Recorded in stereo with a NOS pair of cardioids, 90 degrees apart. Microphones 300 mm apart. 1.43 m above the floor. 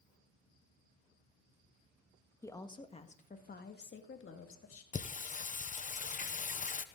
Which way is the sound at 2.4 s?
10° left.